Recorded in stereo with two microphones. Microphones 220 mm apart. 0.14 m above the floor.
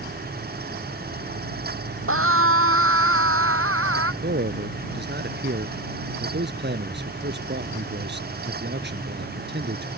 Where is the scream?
75° right (ahead or behind); by 4.1 s 80° right.